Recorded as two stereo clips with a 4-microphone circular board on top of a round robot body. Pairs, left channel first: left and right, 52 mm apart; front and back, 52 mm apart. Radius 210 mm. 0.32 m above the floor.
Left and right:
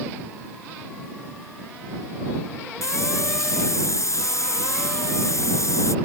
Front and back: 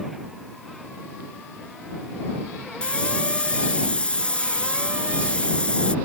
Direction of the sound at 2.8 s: 70° left.